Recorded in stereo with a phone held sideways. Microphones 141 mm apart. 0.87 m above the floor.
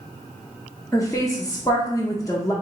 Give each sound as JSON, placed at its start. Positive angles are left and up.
{"t": 0.9, "sound": "a woman speaking", "side_deg": 20, "distance_m": 0.6}